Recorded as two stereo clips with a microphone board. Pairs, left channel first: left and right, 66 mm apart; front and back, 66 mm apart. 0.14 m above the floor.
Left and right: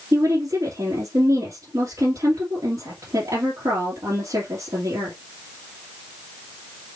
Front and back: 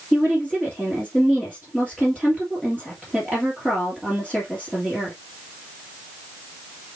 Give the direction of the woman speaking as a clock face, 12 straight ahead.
2 o'clock.